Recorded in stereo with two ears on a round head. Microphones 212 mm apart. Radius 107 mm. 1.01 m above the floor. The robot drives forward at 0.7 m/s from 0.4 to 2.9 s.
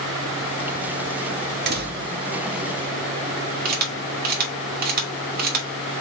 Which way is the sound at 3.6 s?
40° right (ahead or behind).